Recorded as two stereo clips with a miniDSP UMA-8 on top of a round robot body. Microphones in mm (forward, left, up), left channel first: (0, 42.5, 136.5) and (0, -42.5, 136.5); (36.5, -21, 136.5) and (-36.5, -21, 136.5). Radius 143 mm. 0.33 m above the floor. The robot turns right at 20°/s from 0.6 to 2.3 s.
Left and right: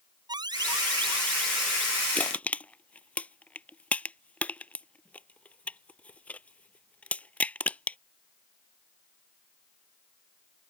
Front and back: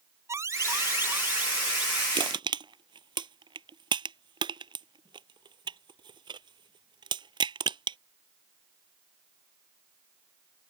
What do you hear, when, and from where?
0.3 s an alarm: 130° right; by 2.0 s 100° right
2.1 s crushing: 160° left; by 8.0 s 165° left